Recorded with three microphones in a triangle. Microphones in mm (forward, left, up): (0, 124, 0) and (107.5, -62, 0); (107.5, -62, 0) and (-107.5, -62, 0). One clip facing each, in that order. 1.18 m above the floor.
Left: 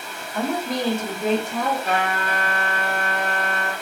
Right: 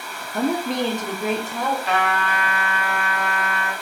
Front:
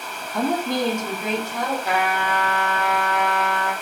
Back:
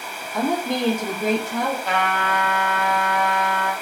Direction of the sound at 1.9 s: 75° left.